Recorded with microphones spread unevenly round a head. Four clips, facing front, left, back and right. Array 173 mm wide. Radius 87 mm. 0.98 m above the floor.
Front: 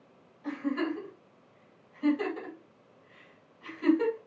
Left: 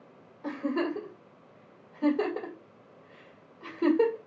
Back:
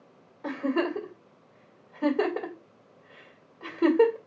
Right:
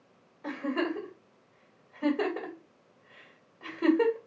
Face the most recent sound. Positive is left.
turn(degrees=155)